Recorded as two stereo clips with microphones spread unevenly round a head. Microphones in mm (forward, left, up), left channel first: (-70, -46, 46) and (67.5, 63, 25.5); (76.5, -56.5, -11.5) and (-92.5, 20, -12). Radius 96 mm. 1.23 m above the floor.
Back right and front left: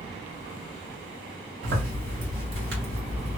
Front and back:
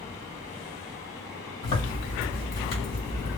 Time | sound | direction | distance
1.6 | a zipper | 10° left | 1.8 m